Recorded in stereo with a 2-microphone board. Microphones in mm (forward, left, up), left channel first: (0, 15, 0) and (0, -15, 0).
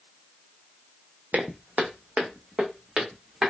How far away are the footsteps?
About 0.7 m.